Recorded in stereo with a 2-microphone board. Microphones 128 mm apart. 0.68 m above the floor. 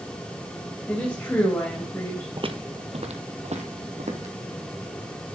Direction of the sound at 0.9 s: 15° left (ahead or behind).